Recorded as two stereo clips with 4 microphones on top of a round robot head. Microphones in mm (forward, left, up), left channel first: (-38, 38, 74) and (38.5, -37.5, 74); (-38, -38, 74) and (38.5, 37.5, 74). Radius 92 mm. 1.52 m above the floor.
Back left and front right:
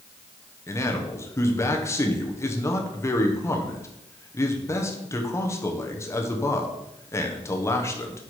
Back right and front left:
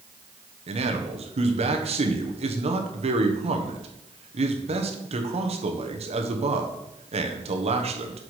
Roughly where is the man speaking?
Left.